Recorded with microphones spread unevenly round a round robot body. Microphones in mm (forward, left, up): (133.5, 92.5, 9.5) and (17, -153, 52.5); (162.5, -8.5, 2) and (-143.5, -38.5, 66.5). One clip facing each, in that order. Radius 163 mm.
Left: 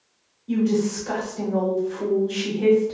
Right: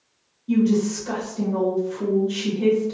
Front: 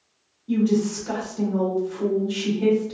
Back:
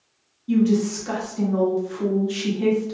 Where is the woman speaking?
160° left, 1.1 m.